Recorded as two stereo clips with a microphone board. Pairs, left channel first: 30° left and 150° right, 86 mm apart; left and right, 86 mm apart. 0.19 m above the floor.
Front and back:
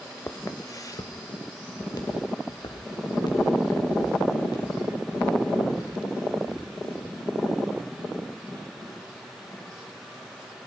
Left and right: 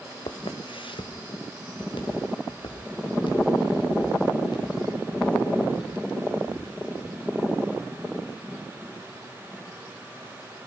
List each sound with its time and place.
0.3 s footsteps: 90° left, 1.2 m; by 7.1 s 60° left, 10 m